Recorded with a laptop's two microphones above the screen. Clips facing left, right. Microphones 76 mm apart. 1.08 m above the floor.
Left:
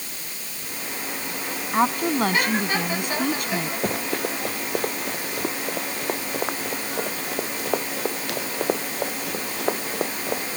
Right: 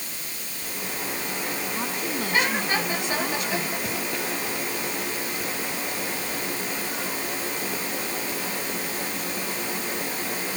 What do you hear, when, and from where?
1.7 s a woman speaking: 55° left (ahead or behind)
3.8 s running footsteps: 50° left (ahead or behind); by 10.4 s 75° left (ahead or behind)